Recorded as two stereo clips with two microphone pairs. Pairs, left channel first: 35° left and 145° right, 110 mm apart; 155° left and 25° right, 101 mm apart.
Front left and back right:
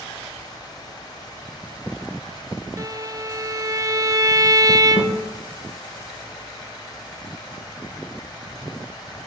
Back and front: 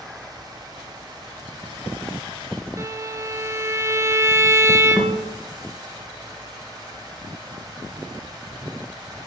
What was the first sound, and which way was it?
A violin, 90° right.